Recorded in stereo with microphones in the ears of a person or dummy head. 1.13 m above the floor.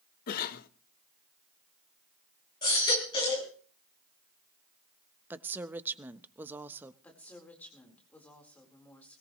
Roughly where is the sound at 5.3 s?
Centre.